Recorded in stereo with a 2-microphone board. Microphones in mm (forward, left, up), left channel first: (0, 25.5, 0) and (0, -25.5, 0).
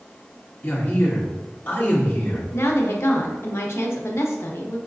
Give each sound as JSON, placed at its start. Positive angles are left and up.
{"t": 0.6, "sound": "a man speaking", "side_deg": 40, "distance_m": 1.1}
{"t": 2.5, "sound": "a woman speaking", "side_deg": 60, "distance_m": 0.7}